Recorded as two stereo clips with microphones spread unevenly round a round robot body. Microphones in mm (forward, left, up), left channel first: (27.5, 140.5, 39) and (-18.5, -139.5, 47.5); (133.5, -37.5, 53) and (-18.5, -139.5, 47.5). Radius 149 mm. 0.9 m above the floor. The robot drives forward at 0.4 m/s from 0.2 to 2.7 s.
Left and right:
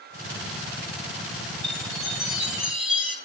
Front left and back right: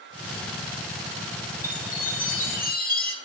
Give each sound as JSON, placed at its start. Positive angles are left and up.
{"t": 1.6, "sound": "a chime", "azimuth_deg": -10, "distance_m": 2.5}